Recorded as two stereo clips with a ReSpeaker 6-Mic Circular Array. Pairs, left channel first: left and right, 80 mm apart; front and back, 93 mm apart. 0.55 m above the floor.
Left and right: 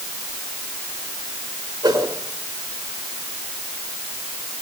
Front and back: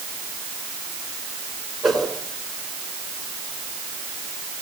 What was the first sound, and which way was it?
A whoosh, 90° right.